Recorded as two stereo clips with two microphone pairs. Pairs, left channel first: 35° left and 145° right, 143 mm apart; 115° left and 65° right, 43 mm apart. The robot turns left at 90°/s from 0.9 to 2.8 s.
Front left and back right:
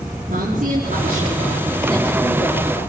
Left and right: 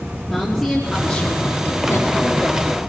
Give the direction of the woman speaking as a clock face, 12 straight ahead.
5 o'clock.